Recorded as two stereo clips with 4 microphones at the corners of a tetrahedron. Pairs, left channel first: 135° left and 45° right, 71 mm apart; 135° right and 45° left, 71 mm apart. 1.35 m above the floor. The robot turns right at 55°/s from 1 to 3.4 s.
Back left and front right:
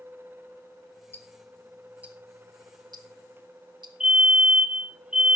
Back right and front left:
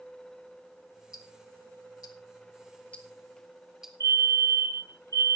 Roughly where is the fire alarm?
Ahead left.